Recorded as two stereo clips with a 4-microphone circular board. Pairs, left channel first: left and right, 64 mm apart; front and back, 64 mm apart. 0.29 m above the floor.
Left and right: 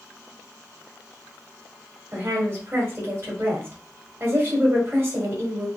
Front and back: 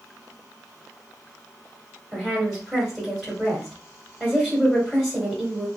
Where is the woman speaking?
85° right, 1.4 m.